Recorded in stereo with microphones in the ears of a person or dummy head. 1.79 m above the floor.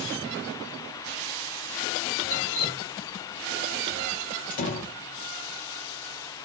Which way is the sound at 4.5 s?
50° left (ahead or behind).